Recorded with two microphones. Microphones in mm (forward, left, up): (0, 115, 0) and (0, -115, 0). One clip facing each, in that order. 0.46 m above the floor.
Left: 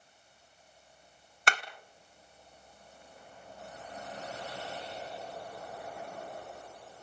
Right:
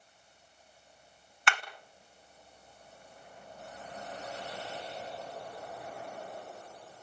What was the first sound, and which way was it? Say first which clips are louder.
Hammering: left 1 dB; 40° left (ahead or behind).